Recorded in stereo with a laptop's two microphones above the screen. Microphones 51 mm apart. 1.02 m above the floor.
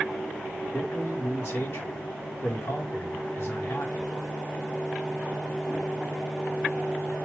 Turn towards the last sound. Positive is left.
turn(degrees=60)  # may be behind; listen again after turning